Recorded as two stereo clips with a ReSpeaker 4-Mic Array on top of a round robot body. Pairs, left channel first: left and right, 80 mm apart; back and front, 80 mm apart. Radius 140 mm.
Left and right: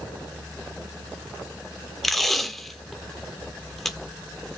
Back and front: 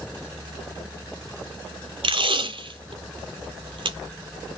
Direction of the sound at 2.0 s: Straight ahead.